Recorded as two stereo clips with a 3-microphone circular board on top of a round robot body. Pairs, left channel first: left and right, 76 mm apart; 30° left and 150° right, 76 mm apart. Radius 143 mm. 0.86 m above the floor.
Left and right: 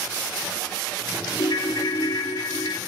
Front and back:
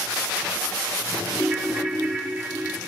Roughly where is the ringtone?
Behind left.